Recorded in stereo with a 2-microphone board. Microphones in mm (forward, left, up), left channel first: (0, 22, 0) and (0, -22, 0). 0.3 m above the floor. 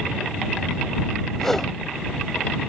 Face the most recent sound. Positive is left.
turn(degrees=10)  # may be behind; listen again after turning